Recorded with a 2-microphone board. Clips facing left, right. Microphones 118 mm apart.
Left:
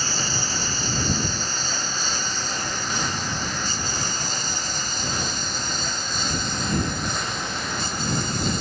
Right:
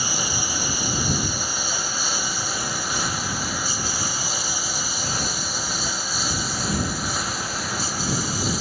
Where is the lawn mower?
10° right (ahead or behind); by 8.6 s 5° right (ahead or behind).